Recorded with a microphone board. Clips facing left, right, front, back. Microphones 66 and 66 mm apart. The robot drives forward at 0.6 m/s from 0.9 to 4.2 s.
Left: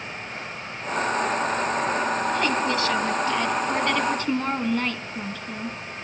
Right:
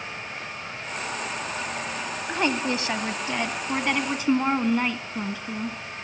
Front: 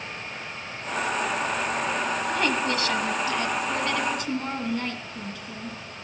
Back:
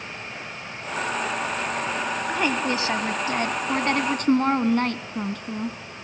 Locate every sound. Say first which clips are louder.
2.3 s a woman speaking: left 2 dB, back 2 dB; 110° right, 1.1 m; by 5.8 s 160° right, 1.7 m